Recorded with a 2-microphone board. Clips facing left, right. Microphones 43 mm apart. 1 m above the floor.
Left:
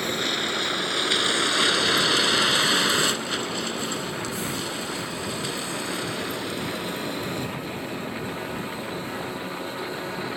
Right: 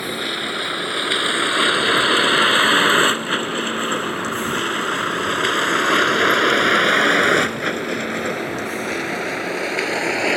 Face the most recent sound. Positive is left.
turn(degrees=-90)